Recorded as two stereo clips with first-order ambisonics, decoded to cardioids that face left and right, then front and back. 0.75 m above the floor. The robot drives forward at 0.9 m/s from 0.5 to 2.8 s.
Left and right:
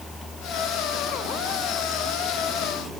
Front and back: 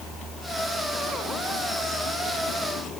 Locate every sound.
Only background noise.